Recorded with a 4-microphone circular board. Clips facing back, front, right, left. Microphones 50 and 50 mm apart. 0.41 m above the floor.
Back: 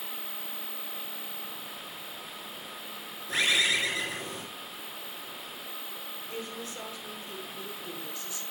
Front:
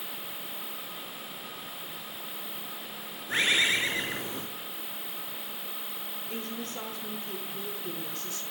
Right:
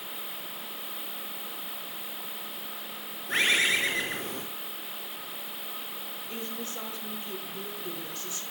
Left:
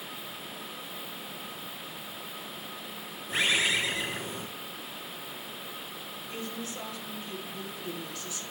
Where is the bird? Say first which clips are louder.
Front 1 dB, right 2 dB; 65° right, 5.5 m.